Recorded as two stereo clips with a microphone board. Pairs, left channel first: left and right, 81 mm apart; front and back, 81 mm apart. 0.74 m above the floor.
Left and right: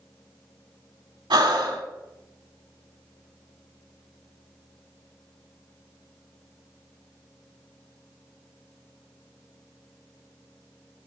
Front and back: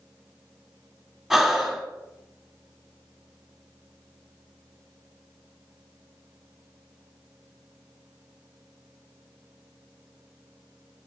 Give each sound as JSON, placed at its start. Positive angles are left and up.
{"t": 1.3, "sound": "breathing", "azimuth_deg": -95, "distance_m": 1.3}